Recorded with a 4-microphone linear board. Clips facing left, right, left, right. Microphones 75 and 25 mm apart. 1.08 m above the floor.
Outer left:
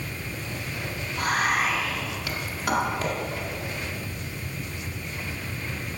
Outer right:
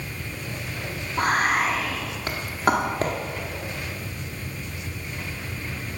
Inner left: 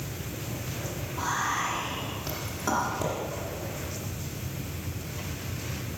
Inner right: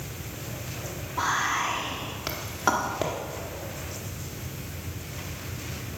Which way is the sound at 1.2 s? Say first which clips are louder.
Outer right 3 dB, inner right 3 dB; 40° right (ahead or behind).